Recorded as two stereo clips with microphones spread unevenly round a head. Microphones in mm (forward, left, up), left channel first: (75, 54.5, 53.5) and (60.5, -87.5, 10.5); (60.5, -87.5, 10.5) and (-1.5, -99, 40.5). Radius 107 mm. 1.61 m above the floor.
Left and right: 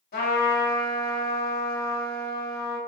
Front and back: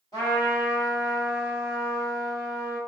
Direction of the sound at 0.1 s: 75° left.